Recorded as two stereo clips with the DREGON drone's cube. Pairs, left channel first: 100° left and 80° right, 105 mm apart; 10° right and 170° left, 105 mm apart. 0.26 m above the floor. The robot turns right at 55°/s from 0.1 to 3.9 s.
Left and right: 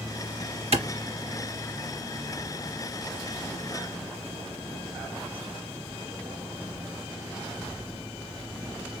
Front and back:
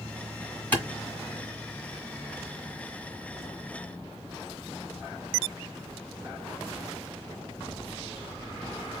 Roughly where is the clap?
Right.